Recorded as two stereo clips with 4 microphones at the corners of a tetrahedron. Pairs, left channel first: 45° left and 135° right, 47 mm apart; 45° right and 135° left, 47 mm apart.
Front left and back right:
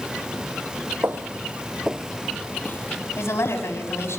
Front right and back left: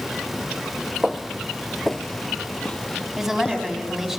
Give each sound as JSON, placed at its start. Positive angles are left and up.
{"t": 1.0, "sound": "footsteps", "azimuth_deg": -135, "distance_m": 1.1}
{"t": 3.2, "sound": "a woman speaking", "azimuth_deg": 55, "distance_m": 5.0}